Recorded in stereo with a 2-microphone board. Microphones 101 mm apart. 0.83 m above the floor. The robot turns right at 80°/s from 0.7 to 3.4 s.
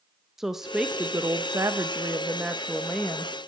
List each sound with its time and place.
0.4 s a woman speaking: 5° right (ahead or behind), 0.6 m; by 3.3 s 20° left (ahead or behind), 0.6 m